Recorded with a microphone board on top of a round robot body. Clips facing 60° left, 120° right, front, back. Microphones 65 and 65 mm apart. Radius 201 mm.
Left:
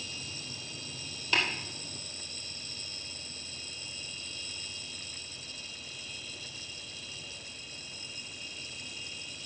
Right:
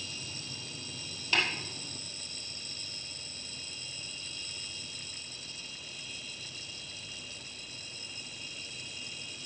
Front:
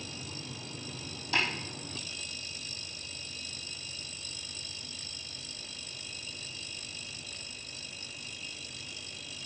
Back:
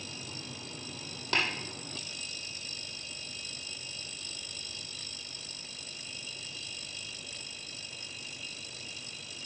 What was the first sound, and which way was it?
Tapping, 150° left.